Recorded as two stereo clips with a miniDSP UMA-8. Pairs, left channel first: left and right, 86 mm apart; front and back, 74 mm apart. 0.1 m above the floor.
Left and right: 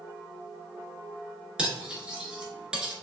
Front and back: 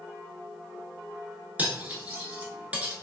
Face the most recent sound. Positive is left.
turn(degrees=-150)